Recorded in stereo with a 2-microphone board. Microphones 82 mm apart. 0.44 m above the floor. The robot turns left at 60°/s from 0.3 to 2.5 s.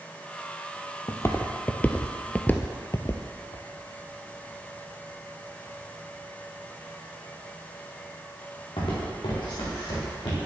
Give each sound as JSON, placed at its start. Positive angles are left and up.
{"t": 1.1, "sound": "footsteps", "side_deg": 40, "distance_m": 0.9}